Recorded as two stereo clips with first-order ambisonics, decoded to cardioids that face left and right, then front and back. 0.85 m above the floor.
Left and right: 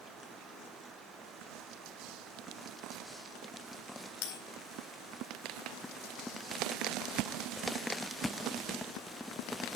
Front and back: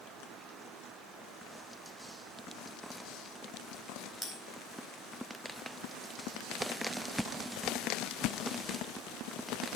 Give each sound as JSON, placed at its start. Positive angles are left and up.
{"t": 4.2, "sound": "a bell", "azimuth_deg": 75, "distance_m": 4.0}